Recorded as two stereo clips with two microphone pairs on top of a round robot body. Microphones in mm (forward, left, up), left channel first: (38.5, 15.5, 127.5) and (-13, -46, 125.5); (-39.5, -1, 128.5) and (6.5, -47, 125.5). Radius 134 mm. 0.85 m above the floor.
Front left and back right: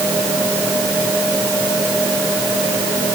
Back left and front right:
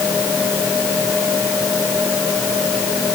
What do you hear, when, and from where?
Only background noise.